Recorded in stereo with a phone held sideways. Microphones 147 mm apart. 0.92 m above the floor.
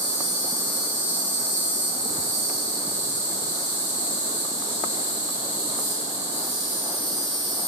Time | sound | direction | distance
0.0 | an insect | 50° right (ahead or behind) | 1.9 m